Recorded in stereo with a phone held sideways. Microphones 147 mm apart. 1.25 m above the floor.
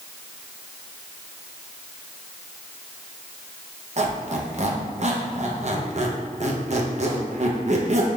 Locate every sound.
4.0 s a squeak: 55° right (ahead or behind), 0.7 m